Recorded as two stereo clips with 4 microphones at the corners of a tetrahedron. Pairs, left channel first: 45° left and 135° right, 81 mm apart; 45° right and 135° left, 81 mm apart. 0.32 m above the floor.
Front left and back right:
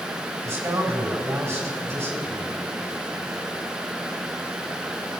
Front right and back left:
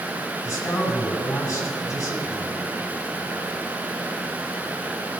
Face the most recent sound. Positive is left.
turn(degrees=-80)